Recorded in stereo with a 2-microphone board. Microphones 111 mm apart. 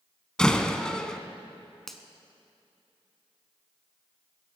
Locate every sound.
0.4 s a door slam: 5° left (ahead or behind), 0.8 m
1.9 s a finger snap: 5° left (ahead or behind), 1.1 m